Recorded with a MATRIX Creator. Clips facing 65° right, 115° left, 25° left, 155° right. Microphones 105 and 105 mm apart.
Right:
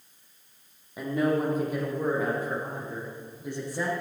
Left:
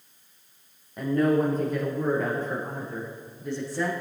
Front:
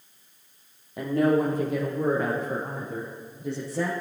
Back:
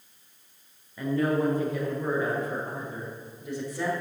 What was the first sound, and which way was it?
A woman speaking, 15° left.